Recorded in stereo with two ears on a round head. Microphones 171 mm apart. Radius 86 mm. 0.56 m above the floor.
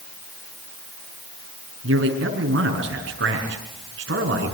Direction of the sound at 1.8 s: 65° right (ahead or behind).